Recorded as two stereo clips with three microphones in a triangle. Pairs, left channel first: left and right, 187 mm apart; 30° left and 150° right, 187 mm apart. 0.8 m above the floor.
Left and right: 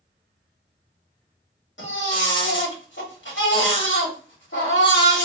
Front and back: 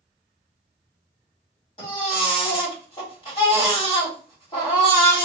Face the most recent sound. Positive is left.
turn(degrees=90)